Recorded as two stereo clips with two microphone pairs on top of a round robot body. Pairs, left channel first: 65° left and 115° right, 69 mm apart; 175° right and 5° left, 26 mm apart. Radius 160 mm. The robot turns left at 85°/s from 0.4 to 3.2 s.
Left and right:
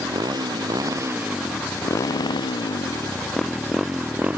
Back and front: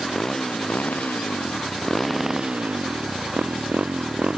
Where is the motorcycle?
105° right; by 4.4 s 50° right.